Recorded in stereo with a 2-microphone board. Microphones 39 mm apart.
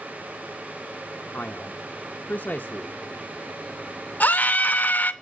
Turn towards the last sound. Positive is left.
turn(degrees=50)  # may be behind; listen again after turning